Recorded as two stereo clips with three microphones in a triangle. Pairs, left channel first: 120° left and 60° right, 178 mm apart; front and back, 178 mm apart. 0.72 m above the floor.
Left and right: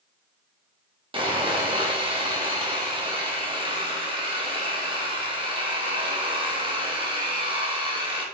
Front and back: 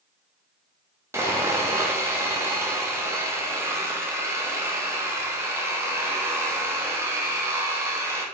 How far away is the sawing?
About 0.6 m.